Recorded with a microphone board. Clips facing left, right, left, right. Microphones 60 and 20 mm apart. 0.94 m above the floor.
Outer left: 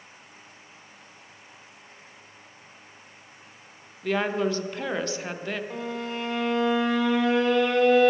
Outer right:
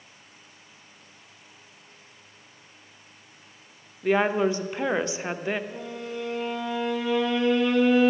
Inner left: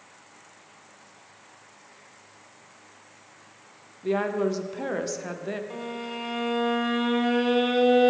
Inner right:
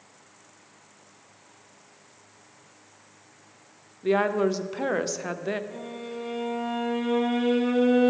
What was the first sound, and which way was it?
A woman speaking, 15° right (ahead or behind).